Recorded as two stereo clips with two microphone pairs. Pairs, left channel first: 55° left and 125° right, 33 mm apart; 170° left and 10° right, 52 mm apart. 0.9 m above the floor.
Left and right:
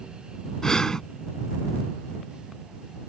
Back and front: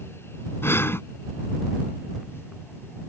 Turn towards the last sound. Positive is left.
turn(degrees=130)